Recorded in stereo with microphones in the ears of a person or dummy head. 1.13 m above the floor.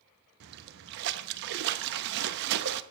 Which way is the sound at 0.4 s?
60° right (ahead or behind).